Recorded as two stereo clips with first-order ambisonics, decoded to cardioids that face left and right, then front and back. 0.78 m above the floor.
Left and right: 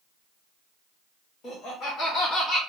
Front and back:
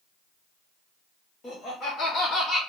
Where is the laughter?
45° left, 1.5 m; by 2.6 s 15° left, 1.2 m.